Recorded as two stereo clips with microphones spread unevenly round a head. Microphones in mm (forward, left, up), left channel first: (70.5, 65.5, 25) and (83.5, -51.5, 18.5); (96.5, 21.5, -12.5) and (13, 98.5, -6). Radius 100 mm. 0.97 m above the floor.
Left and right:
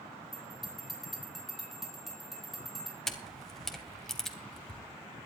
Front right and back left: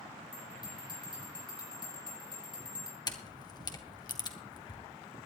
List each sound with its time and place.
0.3 s a bell: 5° left, 9.5 m
3.1 s a camera shutter: 10° left, 2.5 m